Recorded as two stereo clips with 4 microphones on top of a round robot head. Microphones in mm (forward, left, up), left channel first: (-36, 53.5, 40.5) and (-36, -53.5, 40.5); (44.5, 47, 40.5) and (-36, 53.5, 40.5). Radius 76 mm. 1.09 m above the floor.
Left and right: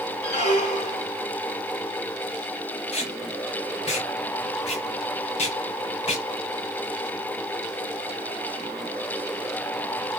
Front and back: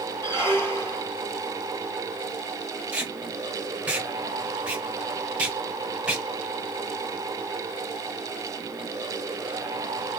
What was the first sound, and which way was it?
A squeak, 55° left.